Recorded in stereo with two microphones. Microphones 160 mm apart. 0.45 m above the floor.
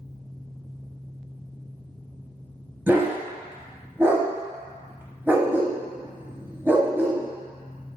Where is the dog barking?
15° right (ahead or behind), 0.6 m.